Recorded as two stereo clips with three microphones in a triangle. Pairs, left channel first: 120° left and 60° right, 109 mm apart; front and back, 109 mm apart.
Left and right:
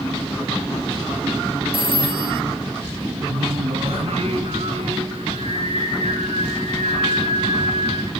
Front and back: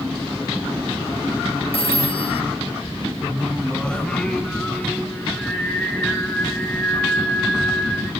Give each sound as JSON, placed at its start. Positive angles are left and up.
{"t": 1.7, "sound": "a phone ringing", "azimuth_deg": -25, "distance_m": 1.7}
{"t": 3.3, "sound": "singing", "azimuth_deg": -85, "distance_m": 6.0}